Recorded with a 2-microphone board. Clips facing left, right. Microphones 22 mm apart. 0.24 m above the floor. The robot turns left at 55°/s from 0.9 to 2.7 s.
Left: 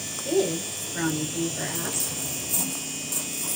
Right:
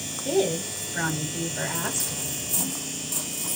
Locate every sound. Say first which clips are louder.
0.2 s a woman speaking: even; centre (ahead or behind), 1.0 m; by 2.2 s 20° right (ahead or behind), 1.0 m